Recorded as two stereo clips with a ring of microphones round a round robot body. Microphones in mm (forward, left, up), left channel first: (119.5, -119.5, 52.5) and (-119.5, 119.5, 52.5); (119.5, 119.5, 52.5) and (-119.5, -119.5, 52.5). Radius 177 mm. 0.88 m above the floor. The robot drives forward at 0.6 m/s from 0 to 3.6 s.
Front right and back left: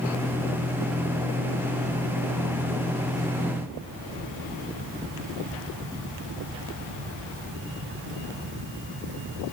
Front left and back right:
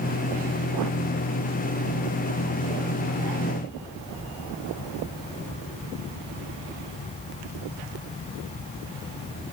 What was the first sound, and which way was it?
Only background noise.